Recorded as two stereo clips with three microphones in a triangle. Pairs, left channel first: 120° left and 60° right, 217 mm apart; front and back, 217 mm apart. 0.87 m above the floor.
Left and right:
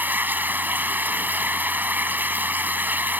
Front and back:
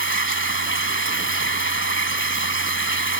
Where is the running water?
20° left.